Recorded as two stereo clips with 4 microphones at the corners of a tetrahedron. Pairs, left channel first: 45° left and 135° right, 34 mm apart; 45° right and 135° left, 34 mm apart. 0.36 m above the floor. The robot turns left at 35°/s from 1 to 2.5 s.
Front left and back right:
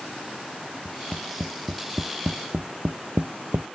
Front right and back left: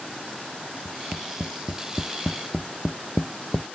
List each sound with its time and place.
0.8 s tapping: 70° right; by 3.6 s 120° right